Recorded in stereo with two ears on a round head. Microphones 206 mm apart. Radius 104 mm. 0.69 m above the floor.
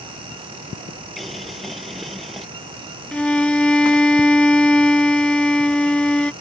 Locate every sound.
1.2 s boiling: centre (ahead or behind)
3.1 s a violin: 5° left (ahead or behind)